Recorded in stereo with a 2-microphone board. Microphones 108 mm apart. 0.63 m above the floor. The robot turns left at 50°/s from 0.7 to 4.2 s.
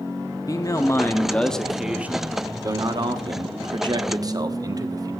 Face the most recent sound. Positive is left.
turn(degrees=-125)